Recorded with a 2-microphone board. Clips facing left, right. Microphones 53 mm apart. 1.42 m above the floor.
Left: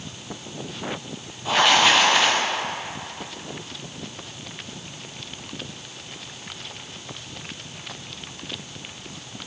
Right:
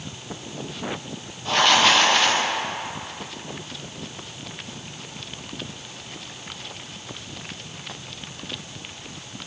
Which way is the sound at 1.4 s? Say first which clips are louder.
Even; 10° left (ahead or behind).